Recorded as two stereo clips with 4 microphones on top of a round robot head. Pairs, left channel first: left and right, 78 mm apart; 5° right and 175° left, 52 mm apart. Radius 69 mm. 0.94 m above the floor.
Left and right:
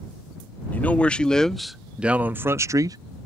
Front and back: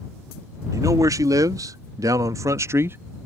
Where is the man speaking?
160° left; by 3.0 s 130° right.